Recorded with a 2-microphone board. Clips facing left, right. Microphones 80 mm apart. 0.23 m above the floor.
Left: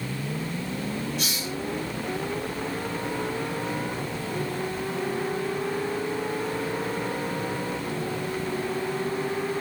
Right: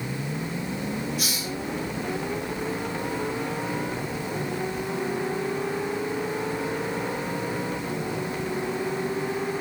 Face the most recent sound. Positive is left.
turn(degrees=-10)  # may be behind; listen again after turning